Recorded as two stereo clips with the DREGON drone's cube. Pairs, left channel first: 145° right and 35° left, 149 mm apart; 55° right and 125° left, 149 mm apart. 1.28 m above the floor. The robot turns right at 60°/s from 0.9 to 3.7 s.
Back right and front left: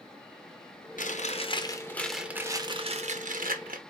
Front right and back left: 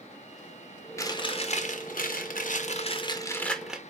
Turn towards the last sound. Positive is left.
turn(degrees=35)